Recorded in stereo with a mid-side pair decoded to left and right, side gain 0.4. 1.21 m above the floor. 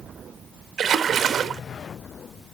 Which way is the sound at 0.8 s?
55° right.